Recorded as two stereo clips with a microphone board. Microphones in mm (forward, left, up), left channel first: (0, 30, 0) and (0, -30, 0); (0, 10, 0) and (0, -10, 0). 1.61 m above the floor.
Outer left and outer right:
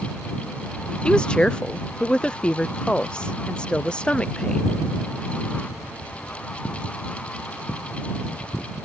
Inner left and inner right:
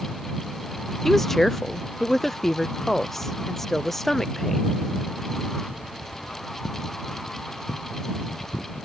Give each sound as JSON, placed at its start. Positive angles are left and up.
{"t": 1.1, "sound": "a woman speaking", "side_deg": 15}